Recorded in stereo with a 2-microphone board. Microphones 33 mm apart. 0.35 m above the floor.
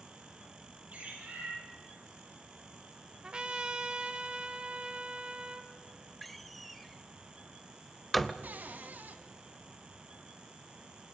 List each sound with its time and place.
0.9 s a bird: 50° right (ahead or behind), 6 m
3.2 s a trumpet: 30° right (ahead or behind), 1.2 m
6.2 s a door slam: 5° left (ahead or behind), 0.8 m
8.4 s a cupboard door: 55° right (ahead or behind), 1.7 m